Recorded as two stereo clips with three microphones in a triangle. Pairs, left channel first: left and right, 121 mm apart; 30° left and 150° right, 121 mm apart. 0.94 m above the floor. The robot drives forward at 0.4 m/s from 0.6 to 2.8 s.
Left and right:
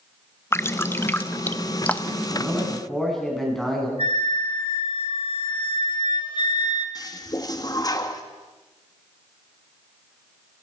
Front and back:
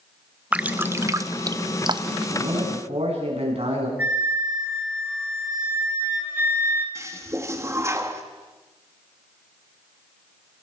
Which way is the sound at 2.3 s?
Straight behind.